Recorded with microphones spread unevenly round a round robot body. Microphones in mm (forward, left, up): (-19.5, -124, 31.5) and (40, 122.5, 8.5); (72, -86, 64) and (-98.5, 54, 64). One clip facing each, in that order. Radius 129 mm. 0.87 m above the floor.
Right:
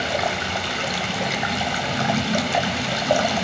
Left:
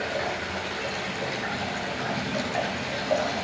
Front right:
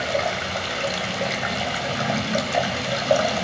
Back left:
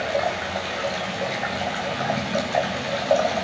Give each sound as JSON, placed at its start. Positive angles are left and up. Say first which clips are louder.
{"t": 0.0, "sound": "running water", "louder": "right 4 dB, even", "azimuth_deg": -95, "distance_m": 2.0}